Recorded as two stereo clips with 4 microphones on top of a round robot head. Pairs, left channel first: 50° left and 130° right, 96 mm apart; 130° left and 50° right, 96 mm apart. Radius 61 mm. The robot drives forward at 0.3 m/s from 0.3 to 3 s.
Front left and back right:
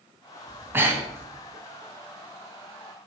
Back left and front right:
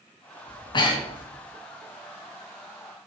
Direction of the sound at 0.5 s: 165° left.